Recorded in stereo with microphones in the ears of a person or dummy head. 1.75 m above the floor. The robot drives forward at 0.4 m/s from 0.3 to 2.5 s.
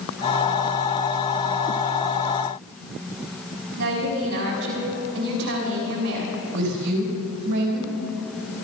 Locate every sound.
3.8 s a woman speaking: 60° right (ahead or behind), 4.5 m
6.5 s a woman speaking: 55° right (ahead or behind), 4 m